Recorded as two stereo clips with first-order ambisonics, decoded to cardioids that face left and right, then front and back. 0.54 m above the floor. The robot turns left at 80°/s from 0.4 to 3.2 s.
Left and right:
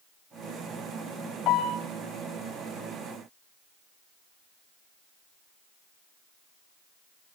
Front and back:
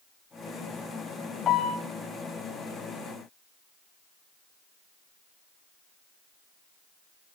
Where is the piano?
55° left, 3 m; by 1.8 s 30° left, 3 m.